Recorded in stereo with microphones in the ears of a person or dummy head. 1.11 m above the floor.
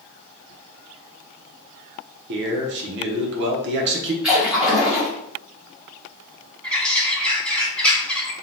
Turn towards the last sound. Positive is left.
turn(degrees=0)  # may be behind; listen again after turning